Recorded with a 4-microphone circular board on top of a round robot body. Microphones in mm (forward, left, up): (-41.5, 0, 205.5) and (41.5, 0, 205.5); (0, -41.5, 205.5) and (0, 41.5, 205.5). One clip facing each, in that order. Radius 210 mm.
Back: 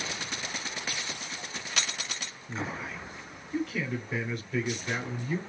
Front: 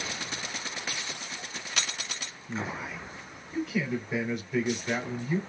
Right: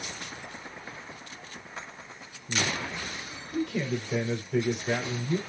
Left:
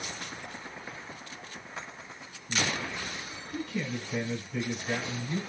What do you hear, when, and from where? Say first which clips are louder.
2.5 s a man speaking: front 1 dB, right 1 dB; 80° right, 4 m